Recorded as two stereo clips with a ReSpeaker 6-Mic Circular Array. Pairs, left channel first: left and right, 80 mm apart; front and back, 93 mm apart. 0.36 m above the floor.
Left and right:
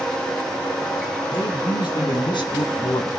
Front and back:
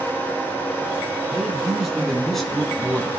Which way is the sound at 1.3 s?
95° left.